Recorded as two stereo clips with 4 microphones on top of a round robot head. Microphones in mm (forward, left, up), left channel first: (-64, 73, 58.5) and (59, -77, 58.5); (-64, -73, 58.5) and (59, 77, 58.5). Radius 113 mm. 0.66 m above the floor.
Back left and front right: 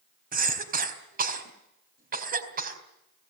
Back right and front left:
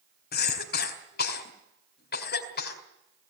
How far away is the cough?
About 4 m.